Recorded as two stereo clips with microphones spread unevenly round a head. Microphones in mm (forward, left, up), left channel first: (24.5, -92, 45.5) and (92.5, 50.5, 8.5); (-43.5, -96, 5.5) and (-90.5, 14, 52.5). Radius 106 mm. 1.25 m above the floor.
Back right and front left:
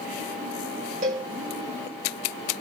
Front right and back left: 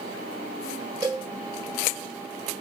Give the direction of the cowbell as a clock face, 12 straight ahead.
8 o'clock.